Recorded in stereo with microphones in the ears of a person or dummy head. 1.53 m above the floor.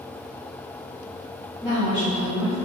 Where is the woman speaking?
5° right (ahead or behind), 0.9 m.